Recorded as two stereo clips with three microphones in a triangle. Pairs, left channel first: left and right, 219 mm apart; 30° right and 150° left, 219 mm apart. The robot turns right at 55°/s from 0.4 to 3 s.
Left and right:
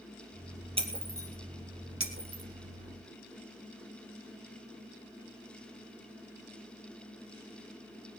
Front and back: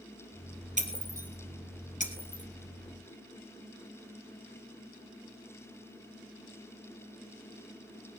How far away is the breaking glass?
About 3 m.